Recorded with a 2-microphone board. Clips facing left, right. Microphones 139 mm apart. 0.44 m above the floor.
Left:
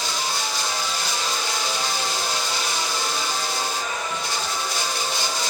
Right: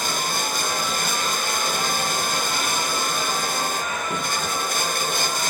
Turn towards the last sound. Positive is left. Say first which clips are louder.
# right 1 dB
turn(degrees=-50)  # may be behind; listen again after turning